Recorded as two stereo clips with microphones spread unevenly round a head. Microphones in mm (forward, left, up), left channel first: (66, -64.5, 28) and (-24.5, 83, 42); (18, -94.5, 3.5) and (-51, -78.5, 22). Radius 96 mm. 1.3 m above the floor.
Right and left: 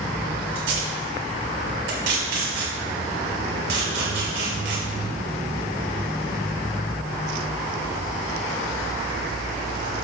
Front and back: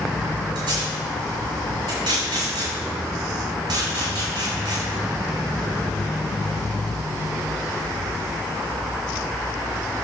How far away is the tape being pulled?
About 4.5 m.